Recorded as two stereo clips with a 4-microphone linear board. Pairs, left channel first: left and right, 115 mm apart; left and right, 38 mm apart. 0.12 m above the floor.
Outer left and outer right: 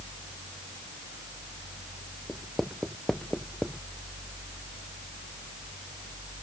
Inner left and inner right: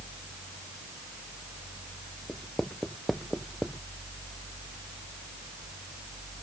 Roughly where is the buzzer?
No buzzer in this recording.